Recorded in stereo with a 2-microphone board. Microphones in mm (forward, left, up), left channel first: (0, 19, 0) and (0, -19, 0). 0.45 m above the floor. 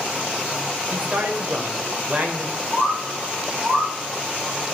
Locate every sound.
0.9 s a man speaking: 50° right (ahead or behind), 1.7 m
2.7 s a bird: 35° right (ahead or behind), 5.5 m